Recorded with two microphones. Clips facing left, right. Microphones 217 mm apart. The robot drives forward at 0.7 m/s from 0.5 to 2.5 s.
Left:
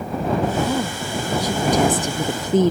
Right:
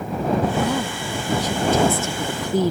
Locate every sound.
0.6 s a woman speaking: 10° left (ahead or behind); by 2.7 s 20° left (ahead or behind)